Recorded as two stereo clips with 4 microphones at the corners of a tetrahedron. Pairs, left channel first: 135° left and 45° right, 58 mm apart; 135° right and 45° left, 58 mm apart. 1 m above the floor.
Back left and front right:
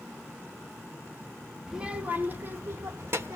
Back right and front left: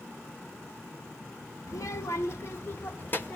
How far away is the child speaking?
About 0.8 m.